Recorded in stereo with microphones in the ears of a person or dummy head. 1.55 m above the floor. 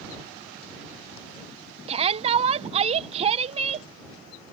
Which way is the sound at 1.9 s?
35° right (ahead or behind).